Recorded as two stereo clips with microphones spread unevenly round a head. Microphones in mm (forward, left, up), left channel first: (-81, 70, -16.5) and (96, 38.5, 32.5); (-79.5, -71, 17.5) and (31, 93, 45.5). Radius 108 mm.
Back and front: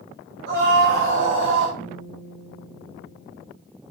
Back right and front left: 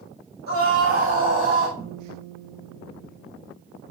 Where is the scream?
10° left, 4 m; by 1.7 s 5° left, 3.5 m.